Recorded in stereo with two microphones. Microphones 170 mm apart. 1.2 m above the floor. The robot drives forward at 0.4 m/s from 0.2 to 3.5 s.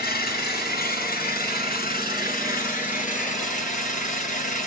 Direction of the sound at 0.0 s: 65° left (ahead or behind).